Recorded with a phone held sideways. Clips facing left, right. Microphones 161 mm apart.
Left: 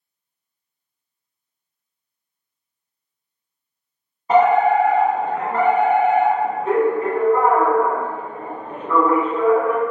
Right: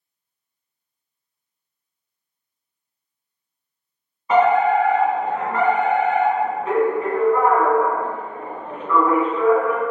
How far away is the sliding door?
No sliding door in this recording.